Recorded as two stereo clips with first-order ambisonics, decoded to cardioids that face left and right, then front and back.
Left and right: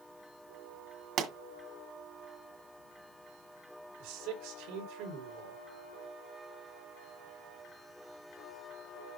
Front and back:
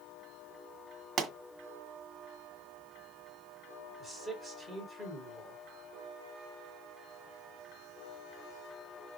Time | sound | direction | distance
1.2 | a pop | 125° right | 2 m
4.0 | a man speaking | 90° right | 5.5 m